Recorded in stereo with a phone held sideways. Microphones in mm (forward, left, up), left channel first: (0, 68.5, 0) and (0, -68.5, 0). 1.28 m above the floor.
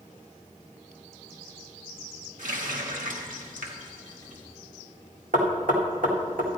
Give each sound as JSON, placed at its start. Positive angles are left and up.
{"t": 2.4, "sound": "a running tap", "side_deg": -70, "distance_m": 1.6}
{"t": 5.3, "sound": "knocking", "side_deg": -75, "distance_m": 1.7}